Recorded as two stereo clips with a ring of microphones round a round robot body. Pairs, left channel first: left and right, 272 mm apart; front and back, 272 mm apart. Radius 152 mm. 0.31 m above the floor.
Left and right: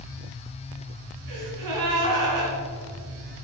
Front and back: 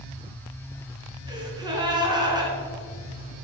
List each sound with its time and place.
1.3 s a gasp: 105° right, 2.5 m